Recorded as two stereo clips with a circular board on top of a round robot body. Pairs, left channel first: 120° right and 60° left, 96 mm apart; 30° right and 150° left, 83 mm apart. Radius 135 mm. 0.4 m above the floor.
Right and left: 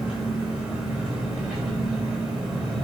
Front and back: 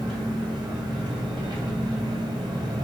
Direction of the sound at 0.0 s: 145° left.